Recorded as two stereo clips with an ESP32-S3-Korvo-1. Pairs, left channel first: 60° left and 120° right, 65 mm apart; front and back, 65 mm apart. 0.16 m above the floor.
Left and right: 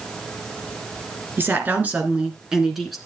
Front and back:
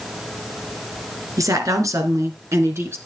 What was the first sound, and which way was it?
A woman speaking, 170° right.